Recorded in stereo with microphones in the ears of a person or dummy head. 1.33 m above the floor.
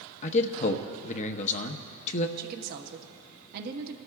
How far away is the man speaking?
About 0.9 m.